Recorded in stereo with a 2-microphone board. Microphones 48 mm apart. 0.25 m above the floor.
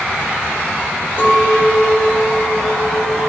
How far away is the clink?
About 4.5 m.